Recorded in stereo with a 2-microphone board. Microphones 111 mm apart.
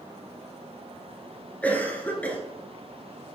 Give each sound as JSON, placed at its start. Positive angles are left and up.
{"t": 1.6, "sound": "a cough", "side_deg": 15, "distance_m": 1.5}